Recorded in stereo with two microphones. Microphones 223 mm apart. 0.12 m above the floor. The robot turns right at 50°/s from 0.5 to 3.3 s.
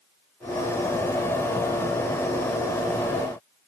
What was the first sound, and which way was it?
Only background noise.